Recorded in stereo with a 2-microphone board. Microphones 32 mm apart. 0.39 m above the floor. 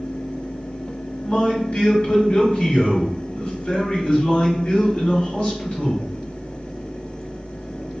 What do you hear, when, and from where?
1.2 s a man speaking: 45° left (ahead or behind), 1.7 m